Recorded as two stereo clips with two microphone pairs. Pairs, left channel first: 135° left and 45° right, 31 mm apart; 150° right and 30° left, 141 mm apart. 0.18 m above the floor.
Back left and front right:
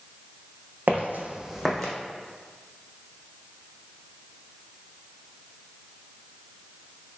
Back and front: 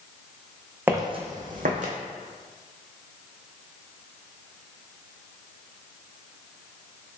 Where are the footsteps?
45° right, 0.7 m; by 1.9 s 55° left, 0.9 m.